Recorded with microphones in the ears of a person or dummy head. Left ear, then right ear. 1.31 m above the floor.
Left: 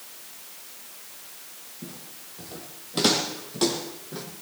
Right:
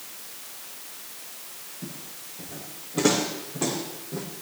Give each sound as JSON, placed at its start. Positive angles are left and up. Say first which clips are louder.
{"t": 1.8, "sound": "footsteps", "louder": "right 1 dB", "side_deg": 50, "distance_m": 3.0}